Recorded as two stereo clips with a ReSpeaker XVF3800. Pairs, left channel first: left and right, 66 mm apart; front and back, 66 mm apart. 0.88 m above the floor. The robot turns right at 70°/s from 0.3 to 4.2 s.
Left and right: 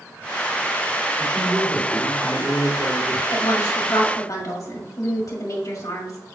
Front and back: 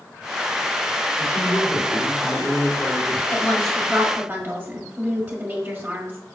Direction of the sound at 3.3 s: 60° left.